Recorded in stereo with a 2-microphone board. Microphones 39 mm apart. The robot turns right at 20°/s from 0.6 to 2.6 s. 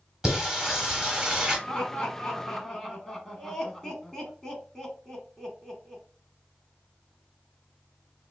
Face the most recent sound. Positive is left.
turn(degrees=15)  # may be behind; listen again after turning